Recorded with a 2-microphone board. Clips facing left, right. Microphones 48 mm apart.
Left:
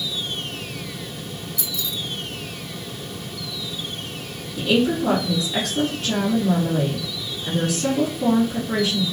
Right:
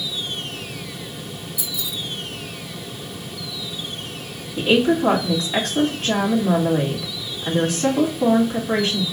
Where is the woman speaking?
40° right (ahead or behind), 2.5 m.